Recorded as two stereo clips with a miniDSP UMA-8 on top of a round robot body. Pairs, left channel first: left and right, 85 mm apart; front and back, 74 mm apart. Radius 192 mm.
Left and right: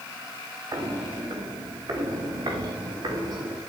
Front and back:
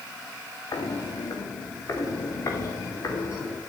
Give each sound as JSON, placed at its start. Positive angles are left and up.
{"t": 0.7, "sound": "footsteps", "azimuth_deg": -40, "distance_m": 2.5}